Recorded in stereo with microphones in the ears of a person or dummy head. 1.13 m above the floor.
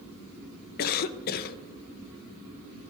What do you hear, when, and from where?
0.8 s a cough: 50° left (ahead or behind), 0.8 m